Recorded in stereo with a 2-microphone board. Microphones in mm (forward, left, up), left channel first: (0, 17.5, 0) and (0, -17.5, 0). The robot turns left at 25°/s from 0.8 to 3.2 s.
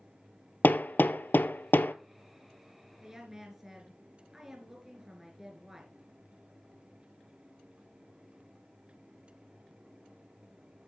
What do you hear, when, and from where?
0.6 s hammering: 65° left (ahead or behind), 0.6 m; by 1.9 s 75° left (ahead or behind), 0.6 m
3.0 s a woman speaking: 15° right (ahead or behind), 2.5 m; by 6.0 s 10° right (ahead or behind), 2.5 m